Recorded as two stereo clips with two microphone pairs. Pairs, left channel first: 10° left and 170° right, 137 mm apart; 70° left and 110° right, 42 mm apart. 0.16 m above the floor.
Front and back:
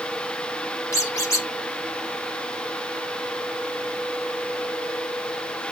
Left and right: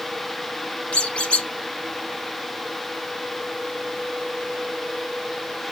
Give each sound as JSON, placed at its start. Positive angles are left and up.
{"t": 0.9, "sound": "a squeak", "azimuth_deg": 50, "distance_m": 1.0}